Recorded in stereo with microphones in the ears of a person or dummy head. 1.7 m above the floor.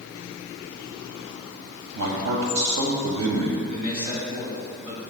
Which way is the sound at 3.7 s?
45° right (ahead or behind).